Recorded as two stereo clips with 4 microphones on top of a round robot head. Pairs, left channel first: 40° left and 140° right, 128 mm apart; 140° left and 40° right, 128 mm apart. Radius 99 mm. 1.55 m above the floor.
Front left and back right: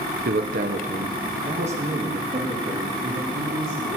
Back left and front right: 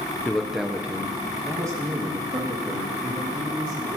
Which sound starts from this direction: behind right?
A man speaking, at 0.2 s.